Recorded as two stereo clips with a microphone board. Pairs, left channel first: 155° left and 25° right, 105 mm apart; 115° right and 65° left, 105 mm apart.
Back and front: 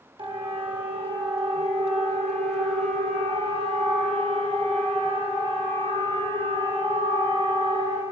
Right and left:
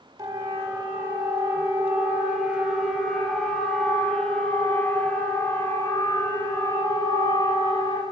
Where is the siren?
10° left, 4 m; by 8.0 s 60° right, 5.5 m.